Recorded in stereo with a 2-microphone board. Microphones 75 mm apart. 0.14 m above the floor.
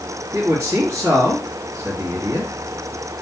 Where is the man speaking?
50° right (ahead or behind), 2.5 m.